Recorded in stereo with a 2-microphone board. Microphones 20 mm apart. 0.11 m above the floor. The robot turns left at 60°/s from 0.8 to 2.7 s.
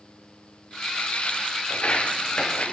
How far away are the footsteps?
About 0.8 m.